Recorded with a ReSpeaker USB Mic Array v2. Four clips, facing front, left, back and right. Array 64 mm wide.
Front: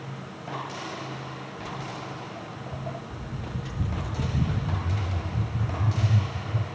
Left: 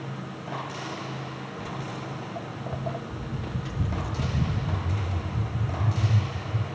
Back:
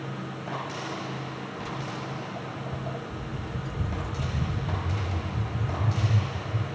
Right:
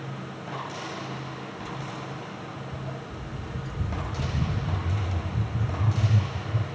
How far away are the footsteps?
About 1.9 m.